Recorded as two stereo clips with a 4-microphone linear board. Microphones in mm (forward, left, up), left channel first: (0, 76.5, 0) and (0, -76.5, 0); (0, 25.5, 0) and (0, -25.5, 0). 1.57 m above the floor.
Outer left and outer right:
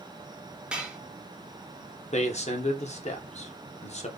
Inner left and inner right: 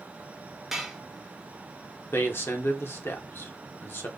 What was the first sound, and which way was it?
Dishes clattering, 5° right (ahead or behind).